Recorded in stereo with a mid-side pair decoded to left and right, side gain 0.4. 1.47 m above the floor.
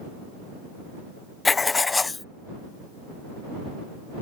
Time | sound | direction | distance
1.4 | writing | 30° left | ?